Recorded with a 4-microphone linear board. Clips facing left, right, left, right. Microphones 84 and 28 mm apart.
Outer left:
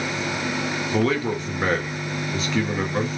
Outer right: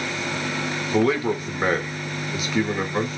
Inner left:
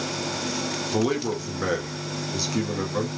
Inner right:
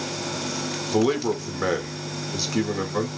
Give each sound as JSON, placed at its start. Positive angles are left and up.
{"t": 0.9, "sound": "a man speaking", "side_deg": -10, "distance_m": 0.6}